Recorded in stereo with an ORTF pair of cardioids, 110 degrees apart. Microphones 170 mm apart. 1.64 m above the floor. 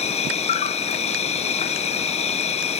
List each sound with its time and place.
0.0 s an insect: 40° left